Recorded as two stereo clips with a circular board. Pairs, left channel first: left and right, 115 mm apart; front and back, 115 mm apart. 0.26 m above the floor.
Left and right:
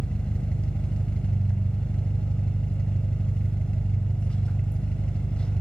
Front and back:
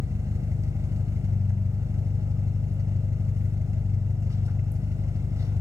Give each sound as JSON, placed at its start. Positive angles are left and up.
{"t": 0.0, "sound": "an engine running", "azimuth_deg": 160, "distance_m": 0.7}